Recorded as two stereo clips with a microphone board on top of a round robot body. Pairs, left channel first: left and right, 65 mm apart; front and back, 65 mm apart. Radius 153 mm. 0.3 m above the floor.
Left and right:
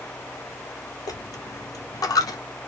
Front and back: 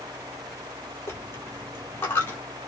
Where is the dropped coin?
60° left, 0.6 m.